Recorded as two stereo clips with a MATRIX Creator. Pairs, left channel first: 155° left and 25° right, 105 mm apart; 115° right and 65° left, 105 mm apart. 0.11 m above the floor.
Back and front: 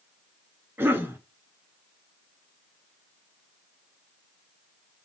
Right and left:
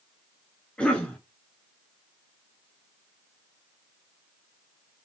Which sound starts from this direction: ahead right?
A cough, at 0.8 s.